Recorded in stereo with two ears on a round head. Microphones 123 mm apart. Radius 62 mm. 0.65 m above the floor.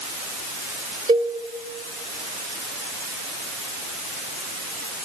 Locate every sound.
1.1 s a cowbell: 35° right (ahead or behind), 1.7 m